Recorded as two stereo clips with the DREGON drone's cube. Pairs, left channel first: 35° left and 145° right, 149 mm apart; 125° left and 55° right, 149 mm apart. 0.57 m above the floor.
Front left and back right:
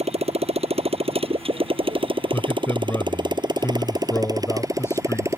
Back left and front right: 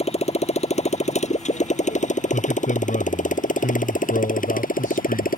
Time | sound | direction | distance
0.0 | a motorcycle | 170° left | ?
2.3 | a man speaking | 105° left | ?